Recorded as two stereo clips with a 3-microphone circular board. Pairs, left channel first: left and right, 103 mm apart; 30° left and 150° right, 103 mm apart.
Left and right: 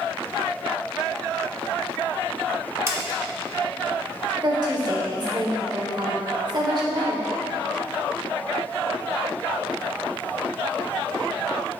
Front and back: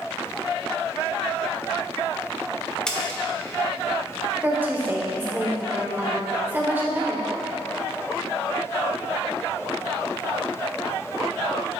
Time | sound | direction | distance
2.9 | a splash | 50° right | 1.0 m
4.4 | a woman speaking | 90° right | 1.6 m